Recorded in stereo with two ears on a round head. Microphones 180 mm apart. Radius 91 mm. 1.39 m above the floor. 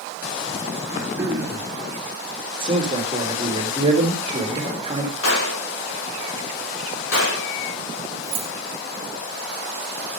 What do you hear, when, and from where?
0.9 s throat clearing: 15° right (ahead or behind), 3.5 m
2.6 s a man speaking: 25° right (ahead or behind), 3 m
5.2 s a gunshot: 85° left, 6.5 m
8.2 s keys jangling: 30° right (ahead or behind), 1.7 m